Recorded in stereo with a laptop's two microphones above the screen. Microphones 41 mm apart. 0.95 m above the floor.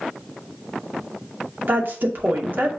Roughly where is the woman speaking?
Right.